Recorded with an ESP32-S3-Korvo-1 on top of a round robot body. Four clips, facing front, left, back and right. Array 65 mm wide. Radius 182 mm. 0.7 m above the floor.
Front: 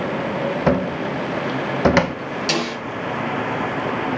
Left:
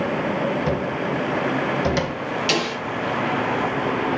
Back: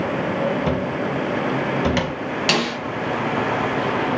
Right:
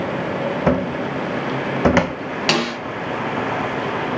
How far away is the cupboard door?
About 0.7 m.